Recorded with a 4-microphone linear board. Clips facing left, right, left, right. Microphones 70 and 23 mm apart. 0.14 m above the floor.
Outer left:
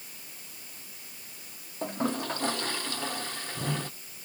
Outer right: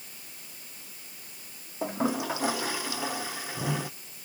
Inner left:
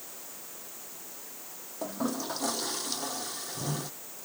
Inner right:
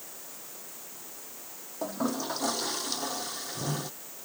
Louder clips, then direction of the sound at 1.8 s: Outer right 2 dB, inner right 2 dB; 10° right (ahead or behind).